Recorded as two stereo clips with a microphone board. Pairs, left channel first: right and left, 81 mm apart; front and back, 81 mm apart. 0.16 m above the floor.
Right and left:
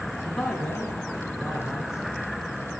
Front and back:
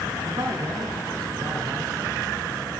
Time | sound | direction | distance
0.2 | a man speaking | 170° right | 1.7 m